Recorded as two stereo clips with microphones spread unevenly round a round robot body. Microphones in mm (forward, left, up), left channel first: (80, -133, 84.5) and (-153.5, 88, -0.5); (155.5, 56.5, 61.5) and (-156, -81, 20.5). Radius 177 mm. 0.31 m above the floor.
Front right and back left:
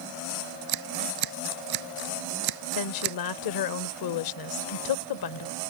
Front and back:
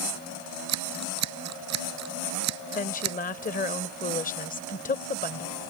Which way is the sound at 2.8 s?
45° right.